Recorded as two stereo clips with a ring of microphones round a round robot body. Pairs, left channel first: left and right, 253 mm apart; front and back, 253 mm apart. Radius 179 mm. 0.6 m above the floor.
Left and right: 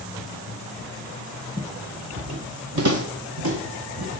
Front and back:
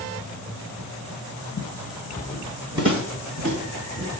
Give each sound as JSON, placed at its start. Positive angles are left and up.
{"t": 1.6, "sound": "footsteps", "azimuth_deg": -10, "distance_m": 0.8}